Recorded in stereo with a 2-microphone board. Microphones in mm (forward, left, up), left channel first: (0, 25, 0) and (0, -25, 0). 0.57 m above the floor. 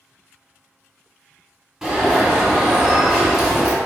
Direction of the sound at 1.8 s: 10° right (ahead or behind).